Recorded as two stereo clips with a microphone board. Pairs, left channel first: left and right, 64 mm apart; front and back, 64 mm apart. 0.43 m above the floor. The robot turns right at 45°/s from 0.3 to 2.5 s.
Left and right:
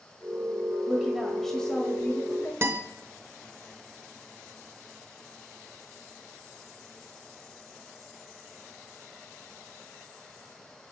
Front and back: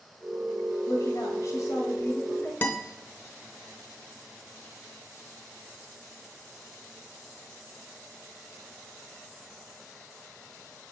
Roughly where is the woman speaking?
Ahead.